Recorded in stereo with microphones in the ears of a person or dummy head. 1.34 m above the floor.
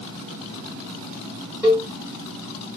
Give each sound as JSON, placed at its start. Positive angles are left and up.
{"t": 1.6, "sound": "a cowbell", "side_deg": -15, "distance_m": 1.5}